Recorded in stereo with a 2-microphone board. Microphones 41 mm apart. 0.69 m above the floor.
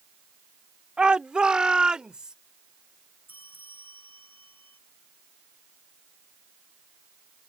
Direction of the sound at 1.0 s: 25° right (ahead or behind).